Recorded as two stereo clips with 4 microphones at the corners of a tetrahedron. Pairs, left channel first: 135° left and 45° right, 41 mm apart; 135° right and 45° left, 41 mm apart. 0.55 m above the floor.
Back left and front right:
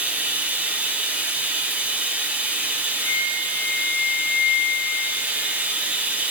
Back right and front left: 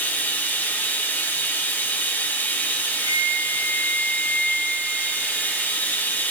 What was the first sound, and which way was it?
Running water, 100° right.